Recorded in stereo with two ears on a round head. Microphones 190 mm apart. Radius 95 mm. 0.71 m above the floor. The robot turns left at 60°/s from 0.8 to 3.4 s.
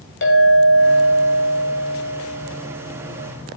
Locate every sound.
0.2 s a clink: 60° left, 3 m; by 3.2 s 85° right, 3 m